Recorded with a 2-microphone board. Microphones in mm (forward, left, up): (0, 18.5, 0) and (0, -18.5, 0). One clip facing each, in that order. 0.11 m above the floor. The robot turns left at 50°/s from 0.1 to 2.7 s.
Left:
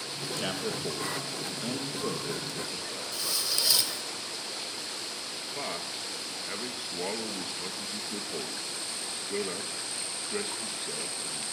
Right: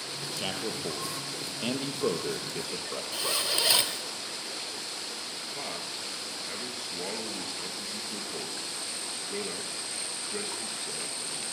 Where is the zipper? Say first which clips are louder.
Right 3 dB; 45° right (ahead or behind), 1.2 m.